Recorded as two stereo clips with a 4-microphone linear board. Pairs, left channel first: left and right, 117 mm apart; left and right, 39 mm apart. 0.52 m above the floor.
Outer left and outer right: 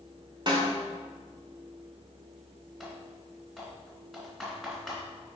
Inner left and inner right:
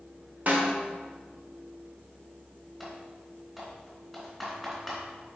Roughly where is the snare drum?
Right.